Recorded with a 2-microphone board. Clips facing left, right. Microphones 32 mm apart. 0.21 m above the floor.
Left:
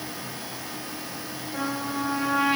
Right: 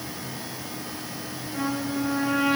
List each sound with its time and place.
1.5 s a trumpet: centre (ahead or behind), 7 m